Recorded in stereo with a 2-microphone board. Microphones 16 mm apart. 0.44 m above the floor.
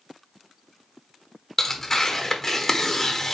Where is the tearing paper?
20° left (ahead or behind), 1.1 m.